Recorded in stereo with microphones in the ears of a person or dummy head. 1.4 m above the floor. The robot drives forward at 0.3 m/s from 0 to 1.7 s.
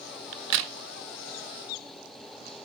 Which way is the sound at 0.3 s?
60° right (ahead or behind).